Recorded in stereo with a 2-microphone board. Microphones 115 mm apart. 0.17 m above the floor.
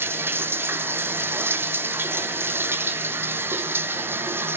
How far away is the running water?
About 1.5 m.